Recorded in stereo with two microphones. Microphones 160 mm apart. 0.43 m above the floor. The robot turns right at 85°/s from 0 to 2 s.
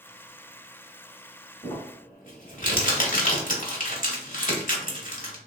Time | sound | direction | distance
1.6 | crumpling | 30° left (ahead or behind) | 1.0 m